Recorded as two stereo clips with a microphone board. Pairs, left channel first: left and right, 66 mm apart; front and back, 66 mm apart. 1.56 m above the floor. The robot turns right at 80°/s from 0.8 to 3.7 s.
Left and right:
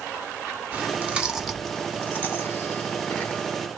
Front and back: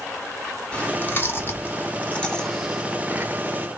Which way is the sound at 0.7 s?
55° right.